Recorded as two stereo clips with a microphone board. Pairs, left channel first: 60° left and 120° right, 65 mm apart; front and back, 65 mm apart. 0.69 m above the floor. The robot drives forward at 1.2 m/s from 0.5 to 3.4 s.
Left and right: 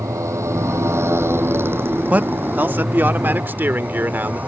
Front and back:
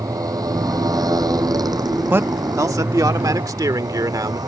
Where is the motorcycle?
155° right; by 4.5 s 175° left.